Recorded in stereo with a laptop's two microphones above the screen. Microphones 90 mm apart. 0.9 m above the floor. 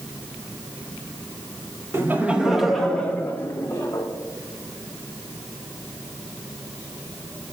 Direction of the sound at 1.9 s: 30° right (ahead or behind).